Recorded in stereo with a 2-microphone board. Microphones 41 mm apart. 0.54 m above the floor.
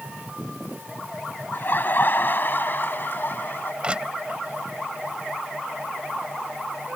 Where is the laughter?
50° left (ahead or behind); by 3.7 s 55° left (ahead or behind).